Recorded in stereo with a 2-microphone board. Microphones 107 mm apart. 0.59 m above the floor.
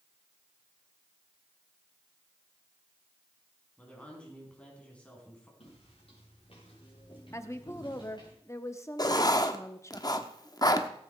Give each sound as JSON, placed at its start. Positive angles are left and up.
{"t": 3.8, "sound": "a woman speaking", "side_deg": 10, "distance_m": 4.5}
{"t": 5.6, "sound": "footsteps", "side_deg": 70, "distance_m": 5.5}
{"t": 7.3, "sound": "a woman speaking", "side_deg": 30, "distance_m": 0.9}
{"t": 9.0, "sound": "writing", "side_deg": 40, "distance_m": 0.9}